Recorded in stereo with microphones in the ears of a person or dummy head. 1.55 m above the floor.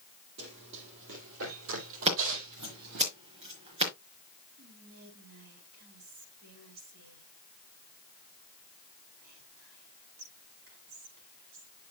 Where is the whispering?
75° right (ahead or behind), 5 m.